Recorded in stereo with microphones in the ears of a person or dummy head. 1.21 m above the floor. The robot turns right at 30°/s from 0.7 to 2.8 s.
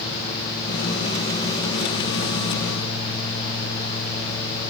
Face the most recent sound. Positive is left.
No sound to turn to.